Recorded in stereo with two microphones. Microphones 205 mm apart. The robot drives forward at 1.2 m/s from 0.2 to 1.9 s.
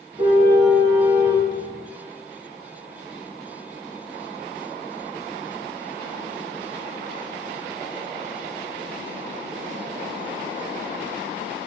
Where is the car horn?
20° right (ahead or behind), 8.5 m; by 1.5 s 25° right (ahead or behind), 7 m.